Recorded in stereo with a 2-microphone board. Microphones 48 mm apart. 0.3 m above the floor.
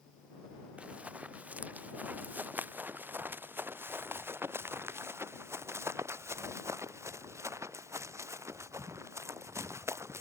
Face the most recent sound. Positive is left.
turn(degrees=-75)  # may be behind; listen again after turning